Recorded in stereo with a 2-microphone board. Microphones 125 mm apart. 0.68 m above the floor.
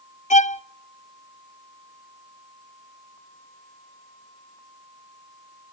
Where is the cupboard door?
I don't hear a cupboard door.